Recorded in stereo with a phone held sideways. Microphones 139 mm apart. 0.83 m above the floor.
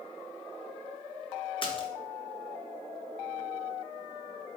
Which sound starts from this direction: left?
A splash, at 1.6 s.